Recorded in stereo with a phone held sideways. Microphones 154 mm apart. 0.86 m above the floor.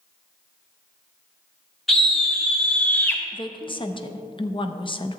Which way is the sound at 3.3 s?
35° left (ahead or behind).